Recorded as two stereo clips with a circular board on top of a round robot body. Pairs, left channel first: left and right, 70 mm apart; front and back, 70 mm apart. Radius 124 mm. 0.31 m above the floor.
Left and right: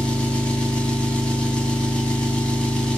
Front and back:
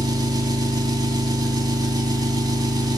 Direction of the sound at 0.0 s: 165° left.